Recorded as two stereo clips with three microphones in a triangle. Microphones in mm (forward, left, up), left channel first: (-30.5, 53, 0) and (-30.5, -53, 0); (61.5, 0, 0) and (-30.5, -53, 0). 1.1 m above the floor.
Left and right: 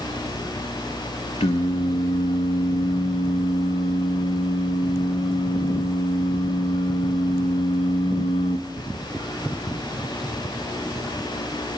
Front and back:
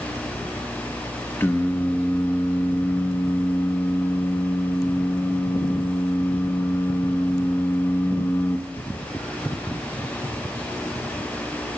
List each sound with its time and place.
1.4 s singing: 95° left, 0.9 m